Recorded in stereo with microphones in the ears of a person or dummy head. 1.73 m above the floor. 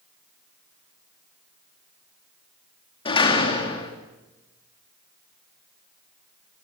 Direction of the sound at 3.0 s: 25° left (ahead or behind).